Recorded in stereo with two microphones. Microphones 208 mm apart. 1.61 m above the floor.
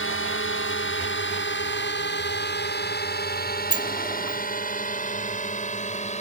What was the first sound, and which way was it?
A drone, 75° left (ahead or behind).